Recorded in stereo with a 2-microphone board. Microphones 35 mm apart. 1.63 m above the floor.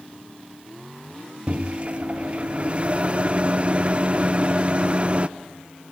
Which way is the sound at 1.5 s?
35° right (ahead or behind).